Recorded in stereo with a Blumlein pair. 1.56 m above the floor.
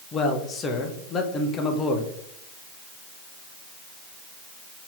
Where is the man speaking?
25° left, 1.3 m.